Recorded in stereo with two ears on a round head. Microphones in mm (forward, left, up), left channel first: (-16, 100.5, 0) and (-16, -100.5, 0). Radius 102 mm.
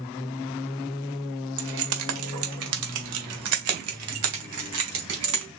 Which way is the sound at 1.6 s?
65° right (ahead or behind).